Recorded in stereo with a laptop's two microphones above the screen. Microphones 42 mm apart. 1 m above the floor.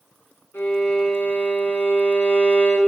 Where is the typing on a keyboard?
No typing on a keyboard in this recording.